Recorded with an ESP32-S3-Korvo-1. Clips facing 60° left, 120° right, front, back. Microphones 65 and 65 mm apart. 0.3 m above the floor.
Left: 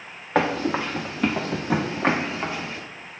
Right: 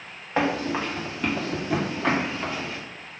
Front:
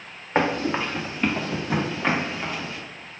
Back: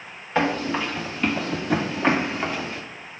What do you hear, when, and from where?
0.3 s running footsteps: 55° left, 1.5 m; by 2.8 s 125° left, 1.4 m